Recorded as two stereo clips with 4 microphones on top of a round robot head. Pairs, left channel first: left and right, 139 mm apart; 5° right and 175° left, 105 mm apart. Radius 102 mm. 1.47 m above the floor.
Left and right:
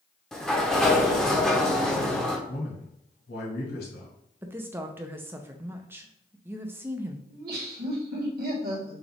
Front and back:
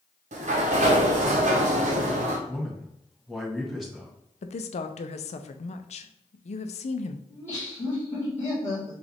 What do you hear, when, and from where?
0.3 s a sliding door: 175° left, 0.9 m
2.5 s a man speaking: 85° left, 1.7 m
4.4 s a woman speaking: 15° right, 0.6 m
7.3 s laughter: 80° right, 1.7 m